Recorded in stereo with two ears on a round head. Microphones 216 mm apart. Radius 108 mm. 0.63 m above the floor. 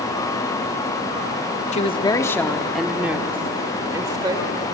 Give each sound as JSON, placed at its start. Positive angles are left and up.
{"t": 1.7, "sound": "a woman speaking", "side_deg": 30, "distance_m": 0.8}